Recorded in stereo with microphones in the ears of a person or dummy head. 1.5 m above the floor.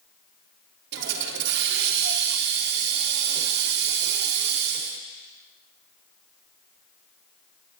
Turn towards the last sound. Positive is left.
turn(degrees=-60)  # may be behind; listen again after turning